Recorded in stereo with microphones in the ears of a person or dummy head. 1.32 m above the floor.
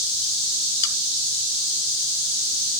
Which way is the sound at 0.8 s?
85° left.